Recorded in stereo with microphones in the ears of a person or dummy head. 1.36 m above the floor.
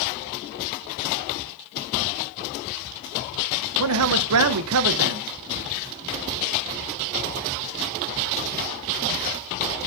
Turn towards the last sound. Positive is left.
turn(degrees=-80)